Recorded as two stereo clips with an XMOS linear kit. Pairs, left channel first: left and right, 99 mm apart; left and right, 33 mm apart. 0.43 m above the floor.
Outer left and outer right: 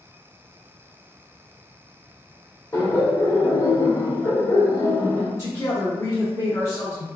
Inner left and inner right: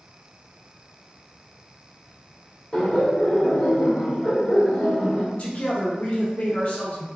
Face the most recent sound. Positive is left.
turn(degrees=30)  # may be behind; listen again after turning